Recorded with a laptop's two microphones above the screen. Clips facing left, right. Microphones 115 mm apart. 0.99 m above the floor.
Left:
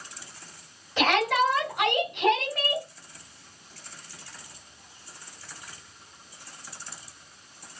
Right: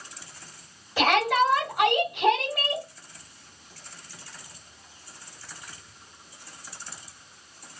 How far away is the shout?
About 3.5 m.